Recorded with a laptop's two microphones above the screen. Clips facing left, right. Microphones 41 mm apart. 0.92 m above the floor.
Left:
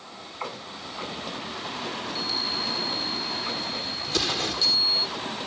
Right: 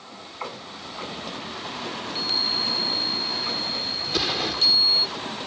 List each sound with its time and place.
2.1 s a chime: 55° right (ahead or behind)
4.1 s an explosion: 10° right (ahead or behind)